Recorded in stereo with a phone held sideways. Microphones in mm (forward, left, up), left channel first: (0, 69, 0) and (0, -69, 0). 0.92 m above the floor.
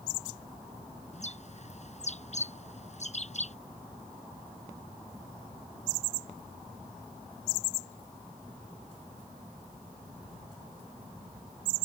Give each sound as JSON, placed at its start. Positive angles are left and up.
{"t": 1.1, "sound": "a bird", "side_deg": 55}